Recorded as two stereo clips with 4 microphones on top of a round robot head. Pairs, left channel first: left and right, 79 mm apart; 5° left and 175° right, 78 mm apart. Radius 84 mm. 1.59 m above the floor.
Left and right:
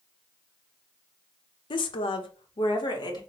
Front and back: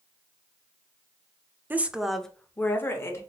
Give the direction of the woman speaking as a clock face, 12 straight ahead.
8 o'clock.